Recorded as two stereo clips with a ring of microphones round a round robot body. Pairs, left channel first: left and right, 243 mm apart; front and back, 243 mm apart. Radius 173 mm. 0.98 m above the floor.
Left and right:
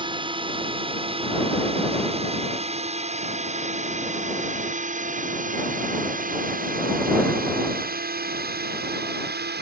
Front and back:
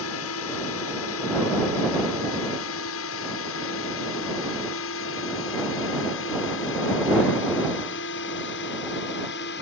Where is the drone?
25° right; by 9.6 s 50° right.